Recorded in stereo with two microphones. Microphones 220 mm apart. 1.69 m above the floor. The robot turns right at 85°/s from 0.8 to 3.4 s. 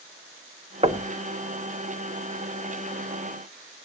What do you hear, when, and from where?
0.8 s knocking: 25° right (ahead or behind), 0.9 m